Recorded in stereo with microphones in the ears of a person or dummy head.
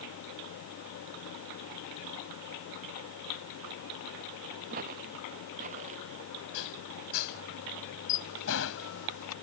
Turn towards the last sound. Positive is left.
turn(degrees=85)